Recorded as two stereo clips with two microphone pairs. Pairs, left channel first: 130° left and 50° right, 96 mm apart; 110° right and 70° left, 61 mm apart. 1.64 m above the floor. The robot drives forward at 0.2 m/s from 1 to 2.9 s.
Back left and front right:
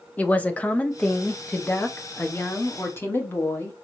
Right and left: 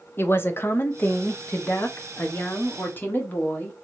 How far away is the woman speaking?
About 0.6 m.